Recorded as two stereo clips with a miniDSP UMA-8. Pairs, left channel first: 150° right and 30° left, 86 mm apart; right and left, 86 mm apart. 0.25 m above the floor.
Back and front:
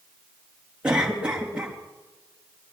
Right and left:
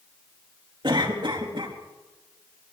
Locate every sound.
0.8 s a cough: 105° left, 4 m